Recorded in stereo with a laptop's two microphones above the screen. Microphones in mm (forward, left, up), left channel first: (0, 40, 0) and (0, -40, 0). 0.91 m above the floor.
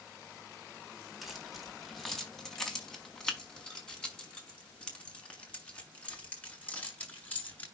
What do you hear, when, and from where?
1.2 s keys jangling: centre (ahead or behind), 4 m; by 7.7 s 20° left (ahead or behind), 7 m